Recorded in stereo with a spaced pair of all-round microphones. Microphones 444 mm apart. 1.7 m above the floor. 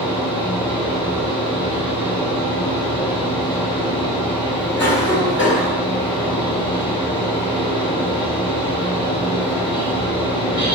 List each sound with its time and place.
0.0 s a fan: 10° left (ahead or behind), 1.2 m
4.8 s a cough: 30° left (ahead or behind), 0.7 m